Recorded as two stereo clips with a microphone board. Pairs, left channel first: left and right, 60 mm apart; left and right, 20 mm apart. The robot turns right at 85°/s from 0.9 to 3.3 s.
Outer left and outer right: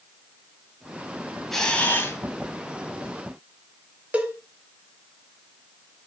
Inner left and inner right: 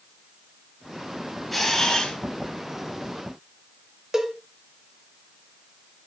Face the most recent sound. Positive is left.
turn(degrees=-20)  # may be behind; listen again after turning